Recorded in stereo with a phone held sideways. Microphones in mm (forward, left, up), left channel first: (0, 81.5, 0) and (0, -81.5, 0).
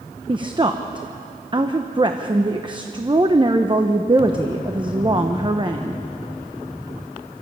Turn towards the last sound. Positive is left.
turn(degrees=-30)  # may be behind; listen again after turning